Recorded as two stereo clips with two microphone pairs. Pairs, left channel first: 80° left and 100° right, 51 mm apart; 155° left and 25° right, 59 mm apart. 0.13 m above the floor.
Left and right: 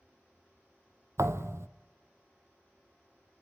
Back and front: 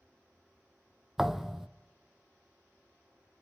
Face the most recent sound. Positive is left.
turn(degrees=-110)